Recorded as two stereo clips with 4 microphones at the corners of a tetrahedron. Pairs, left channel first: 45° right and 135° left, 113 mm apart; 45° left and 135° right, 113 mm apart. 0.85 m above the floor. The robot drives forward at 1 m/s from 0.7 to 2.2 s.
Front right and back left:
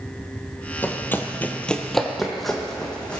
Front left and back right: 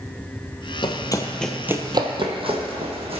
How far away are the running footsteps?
About 1.4 m.